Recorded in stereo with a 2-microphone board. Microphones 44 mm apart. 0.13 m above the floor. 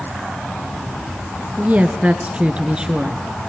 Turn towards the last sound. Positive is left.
turn(degrees=-15)  # may be behind; listen again after turning